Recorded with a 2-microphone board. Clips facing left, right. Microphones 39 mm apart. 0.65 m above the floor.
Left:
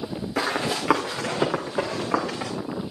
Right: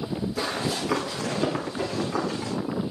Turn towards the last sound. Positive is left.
turn(degrees=80)